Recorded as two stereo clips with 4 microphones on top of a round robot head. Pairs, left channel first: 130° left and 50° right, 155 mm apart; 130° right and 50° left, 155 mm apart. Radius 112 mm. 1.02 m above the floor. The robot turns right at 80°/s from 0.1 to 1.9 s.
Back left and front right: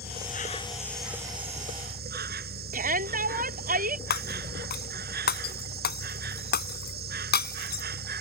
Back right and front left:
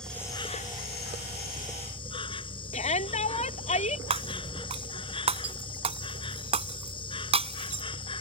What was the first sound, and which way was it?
An insect, 145° left.